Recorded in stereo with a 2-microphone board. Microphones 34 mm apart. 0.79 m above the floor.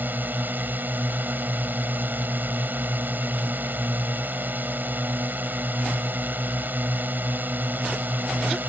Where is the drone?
75° right (ahead or behind).